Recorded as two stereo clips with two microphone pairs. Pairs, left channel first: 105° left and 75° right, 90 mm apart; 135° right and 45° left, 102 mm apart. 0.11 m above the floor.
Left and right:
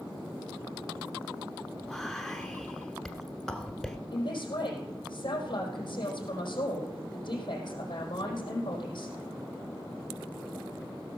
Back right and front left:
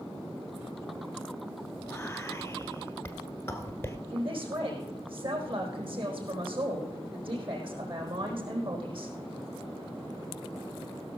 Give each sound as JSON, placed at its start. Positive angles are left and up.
{"t": 1.8, "sound": "whispering", "azimuth_deg": -170, "distance_m": 1.1}
{"t": 4.1, "sound": "a man speaking", "azimuth_deg": 70, "distance_m": 4.5}